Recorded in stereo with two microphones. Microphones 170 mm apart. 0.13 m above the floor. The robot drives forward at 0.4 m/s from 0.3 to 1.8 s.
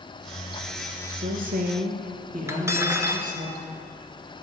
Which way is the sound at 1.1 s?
55° right (ahead or behind).